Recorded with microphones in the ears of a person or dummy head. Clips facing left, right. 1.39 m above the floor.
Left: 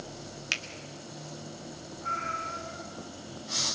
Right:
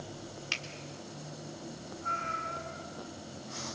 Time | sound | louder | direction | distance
0.5 | a finger snap | left 1 dB | 30° left (ahead or behind) | 1.6 m
2.0 | a cat meowing | left 2 dB | 55° left (ahead or behind) | 6 m